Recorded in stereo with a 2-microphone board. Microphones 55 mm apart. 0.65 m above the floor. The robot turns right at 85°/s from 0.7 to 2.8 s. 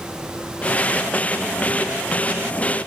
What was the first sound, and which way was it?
Only background noise.